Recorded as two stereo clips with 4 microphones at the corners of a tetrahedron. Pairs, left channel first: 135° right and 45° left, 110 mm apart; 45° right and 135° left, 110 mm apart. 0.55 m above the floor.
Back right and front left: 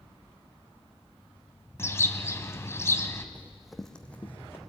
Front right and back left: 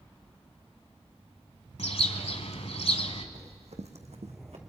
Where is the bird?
70° right, 1.2 m.